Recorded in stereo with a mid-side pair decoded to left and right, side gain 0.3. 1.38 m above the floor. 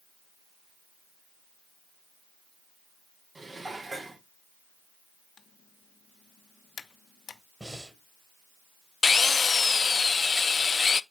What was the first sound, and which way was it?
Dishes clattering, 35° right.